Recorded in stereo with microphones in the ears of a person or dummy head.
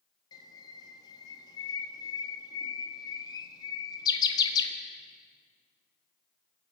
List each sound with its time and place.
0.3 s a bird: 25° left (ahead or behind), 1.4 m